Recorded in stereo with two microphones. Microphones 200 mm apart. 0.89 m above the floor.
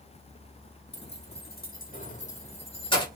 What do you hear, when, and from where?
0.9 s keys jangling: 60° left (ahead or behind), 1.6 m; by 3.1 s 20° left (ahead or behind), 1.7 m